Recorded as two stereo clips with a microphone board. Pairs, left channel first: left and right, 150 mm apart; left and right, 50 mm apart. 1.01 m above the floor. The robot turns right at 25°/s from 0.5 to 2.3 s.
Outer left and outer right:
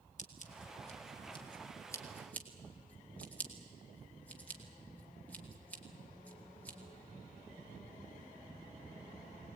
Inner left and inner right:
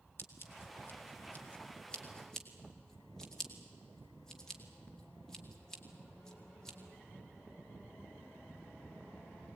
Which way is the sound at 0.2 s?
55° left (ahead or behind).